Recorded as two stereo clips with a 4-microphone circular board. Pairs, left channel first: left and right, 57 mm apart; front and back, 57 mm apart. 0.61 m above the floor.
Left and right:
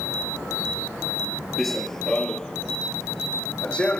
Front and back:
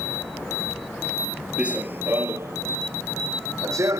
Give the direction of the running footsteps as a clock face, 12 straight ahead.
6 o'clock.